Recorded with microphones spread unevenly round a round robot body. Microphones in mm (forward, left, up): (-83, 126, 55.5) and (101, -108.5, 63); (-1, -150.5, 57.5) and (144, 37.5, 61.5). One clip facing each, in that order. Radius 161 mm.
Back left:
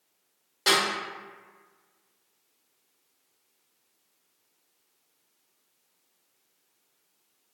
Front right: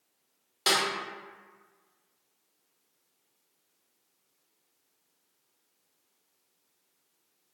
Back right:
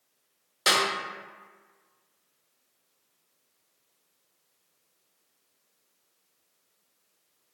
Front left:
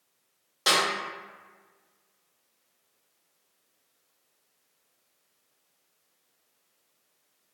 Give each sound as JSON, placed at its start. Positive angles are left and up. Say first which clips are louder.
{"t": 0.7, "sound": "a snare drum", "louder": "back left 4 dB, even", "azimuth_deg": -110, "distance_m": 1.4}